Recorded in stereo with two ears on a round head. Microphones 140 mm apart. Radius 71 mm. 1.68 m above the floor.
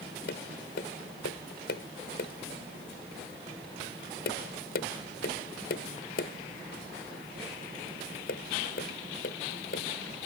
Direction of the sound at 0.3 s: 65° left (ahead or behind).